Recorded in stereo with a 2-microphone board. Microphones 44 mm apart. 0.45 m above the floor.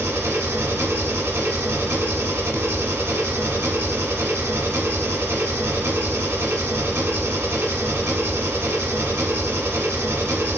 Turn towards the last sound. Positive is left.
turn(degrees=-80)